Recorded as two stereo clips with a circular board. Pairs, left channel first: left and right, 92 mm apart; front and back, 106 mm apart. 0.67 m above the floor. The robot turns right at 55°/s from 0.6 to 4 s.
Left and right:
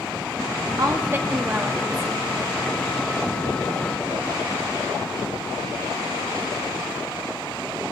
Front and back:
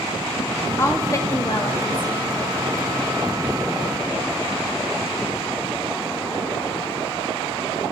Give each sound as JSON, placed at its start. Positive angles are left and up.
{"t": 0.8, "sound": "a woman speaking", "azimuth_deg": -60, "distance_m": 0.6}